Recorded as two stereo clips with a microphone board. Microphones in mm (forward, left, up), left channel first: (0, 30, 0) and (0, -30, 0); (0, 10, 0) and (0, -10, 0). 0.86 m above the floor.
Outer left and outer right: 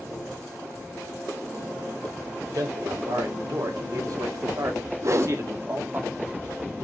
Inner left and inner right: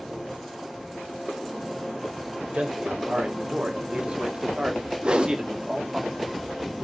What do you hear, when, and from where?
2.5 s a man speaking: 70° right (ahead or behind), 3 m; by 6.0 s 35° right (ahead or behind), 1.7 m
5.0 s a whoosh: 55° right (ahead or behind), 1.0 m